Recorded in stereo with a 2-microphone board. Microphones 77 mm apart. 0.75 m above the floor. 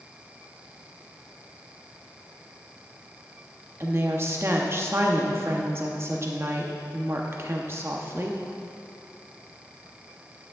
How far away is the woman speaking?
About 0.8 m.